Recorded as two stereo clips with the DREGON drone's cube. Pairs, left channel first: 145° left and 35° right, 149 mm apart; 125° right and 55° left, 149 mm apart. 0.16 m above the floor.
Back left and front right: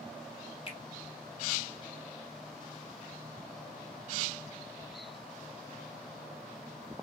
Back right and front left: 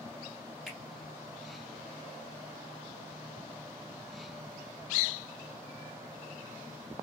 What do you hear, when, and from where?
0.7 s a finger snap: 145° left, 1.3 m